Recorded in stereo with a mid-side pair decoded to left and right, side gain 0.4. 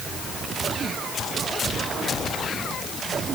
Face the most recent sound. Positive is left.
No sound to turn to.